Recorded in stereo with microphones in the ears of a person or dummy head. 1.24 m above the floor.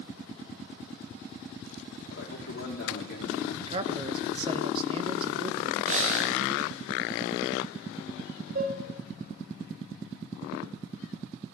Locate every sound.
2.1 s a man speaking: 60° left (ahead or behind), 3.5 m
3.6 s a man speaking: 30° right (ahead or behind), 1.1 m
5.8 s breathing: 40° right (ahead or behind), 1.1 m
8.6 s dishes clattering: 50° right (ahead or behind), 2.5 m